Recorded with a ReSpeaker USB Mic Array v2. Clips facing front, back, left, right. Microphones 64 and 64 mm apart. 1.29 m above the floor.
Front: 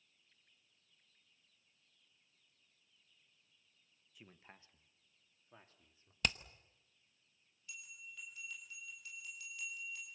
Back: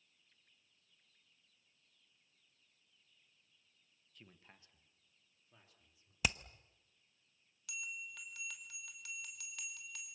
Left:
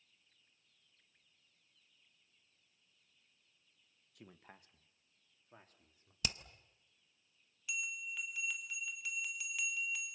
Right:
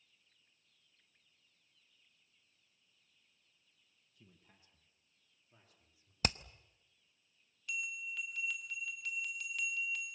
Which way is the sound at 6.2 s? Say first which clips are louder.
Back 1 dB, right 6 dB; 100° right.